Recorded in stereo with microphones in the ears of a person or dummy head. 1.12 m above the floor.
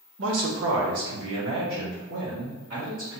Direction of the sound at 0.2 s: 80° right.